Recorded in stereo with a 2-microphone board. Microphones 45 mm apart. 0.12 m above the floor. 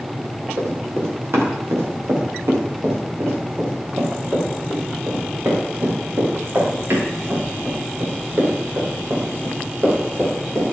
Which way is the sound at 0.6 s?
75° right (ahead or behind).